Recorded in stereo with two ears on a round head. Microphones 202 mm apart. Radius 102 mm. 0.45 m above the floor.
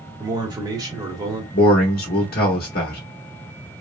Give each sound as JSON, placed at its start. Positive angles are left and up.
{"t": 0.2, "sound": "a man speaking", "side_deg": -15, "distance_m": 1.2}
{"t": 1.5, "sound": "a man speaking", "side_deg": 45, "distance_m": 0.9}